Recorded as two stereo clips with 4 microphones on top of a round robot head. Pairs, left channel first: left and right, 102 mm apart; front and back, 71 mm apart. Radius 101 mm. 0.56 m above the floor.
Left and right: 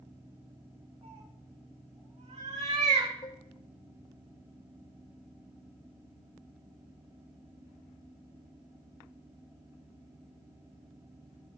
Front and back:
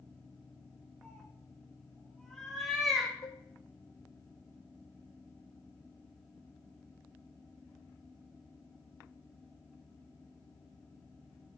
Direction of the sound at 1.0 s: 80° right.